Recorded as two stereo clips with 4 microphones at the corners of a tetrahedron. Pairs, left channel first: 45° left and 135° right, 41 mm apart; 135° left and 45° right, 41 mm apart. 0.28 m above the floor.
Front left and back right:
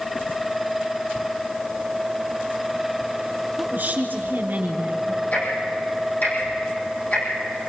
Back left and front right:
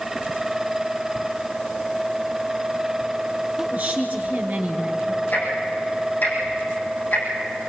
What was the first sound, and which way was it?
A woman speaking, 90° right.